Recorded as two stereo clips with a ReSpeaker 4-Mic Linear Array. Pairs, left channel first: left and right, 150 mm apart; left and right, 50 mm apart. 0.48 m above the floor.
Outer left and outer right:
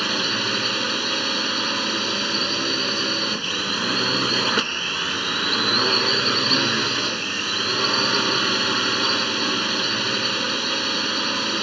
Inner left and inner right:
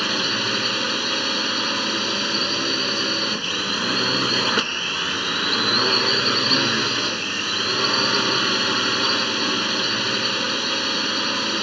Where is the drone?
Centre (ahead or behind).